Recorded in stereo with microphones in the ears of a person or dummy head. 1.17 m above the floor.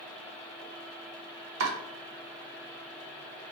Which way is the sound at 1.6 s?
85° right.